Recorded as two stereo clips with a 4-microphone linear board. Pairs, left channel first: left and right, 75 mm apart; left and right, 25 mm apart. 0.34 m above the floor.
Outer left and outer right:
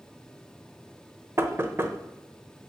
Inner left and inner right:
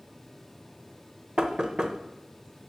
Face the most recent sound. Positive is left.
turn(degrees=-30)  # may be behind; listen again after turning